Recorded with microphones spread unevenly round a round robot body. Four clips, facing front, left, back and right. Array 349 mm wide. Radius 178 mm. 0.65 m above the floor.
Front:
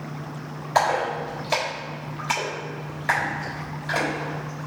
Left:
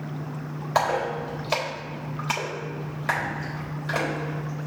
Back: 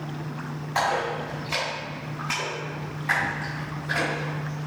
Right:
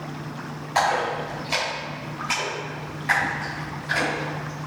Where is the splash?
60° left, 3 m.